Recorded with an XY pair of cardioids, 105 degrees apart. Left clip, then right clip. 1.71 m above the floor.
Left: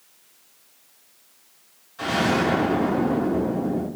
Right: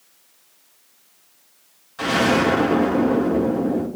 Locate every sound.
2.0 s an explosion: 45° right, 3 m